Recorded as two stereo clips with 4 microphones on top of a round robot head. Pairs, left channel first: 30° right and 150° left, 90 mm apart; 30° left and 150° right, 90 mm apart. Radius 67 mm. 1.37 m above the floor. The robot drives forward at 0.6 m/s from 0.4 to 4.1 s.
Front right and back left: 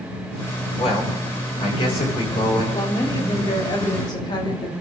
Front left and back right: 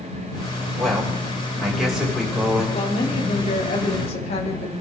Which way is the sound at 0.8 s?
60° right.